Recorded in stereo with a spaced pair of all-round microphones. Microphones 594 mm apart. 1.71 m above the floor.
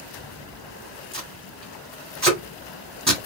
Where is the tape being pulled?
25° right (ahead or behind), 1.9 m.